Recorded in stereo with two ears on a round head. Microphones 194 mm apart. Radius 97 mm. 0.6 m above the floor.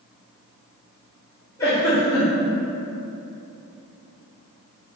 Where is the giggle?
15° left (ahead or behind), 1.2 m.